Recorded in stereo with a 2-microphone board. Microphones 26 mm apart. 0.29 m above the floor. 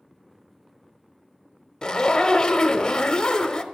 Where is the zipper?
25° left (ahead or behind), 0.6 m.